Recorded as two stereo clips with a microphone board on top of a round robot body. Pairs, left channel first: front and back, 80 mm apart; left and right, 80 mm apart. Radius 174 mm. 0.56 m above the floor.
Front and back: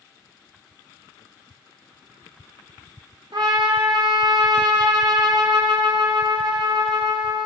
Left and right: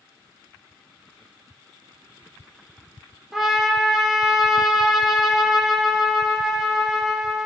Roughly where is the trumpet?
Behind.